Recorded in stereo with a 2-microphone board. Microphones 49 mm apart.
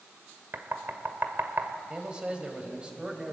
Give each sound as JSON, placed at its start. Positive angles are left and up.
{"t": 0.5, "sound": "knocking", "side_deg": -55, "distance_m": 1.8}
{"t": 1.9, "sound": "a man speaking", "side_deg": -20, "distance_m": 3.5}